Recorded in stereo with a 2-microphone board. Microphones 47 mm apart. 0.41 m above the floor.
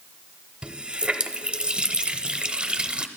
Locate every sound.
0.6 s a running tap: 25° right (ahead or behind), 0.7 m